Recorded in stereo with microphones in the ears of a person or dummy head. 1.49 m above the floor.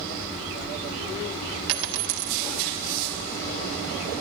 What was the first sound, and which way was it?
A dropped coin, 60° right (ahead or behind).